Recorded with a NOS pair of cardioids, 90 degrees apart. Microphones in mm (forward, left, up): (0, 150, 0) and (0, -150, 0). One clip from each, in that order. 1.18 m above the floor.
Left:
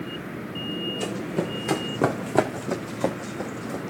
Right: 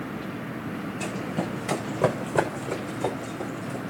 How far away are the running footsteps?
About 4 m.